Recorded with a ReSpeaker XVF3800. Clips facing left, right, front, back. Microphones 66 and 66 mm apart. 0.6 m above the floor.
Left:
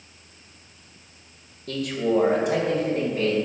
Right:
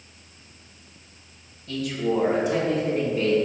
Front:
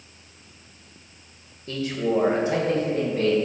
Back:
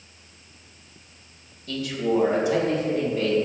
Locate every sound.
1.7 s a man speaking: 60° left, 1.6 m; by 3.4 s 50° left, 4 m